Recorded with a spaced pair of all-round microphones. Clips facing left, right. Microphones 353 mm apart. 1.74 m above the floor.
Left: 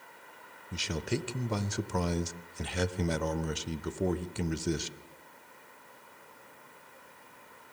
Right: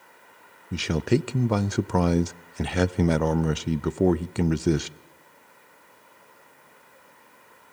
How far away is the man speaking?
About 0.5 m.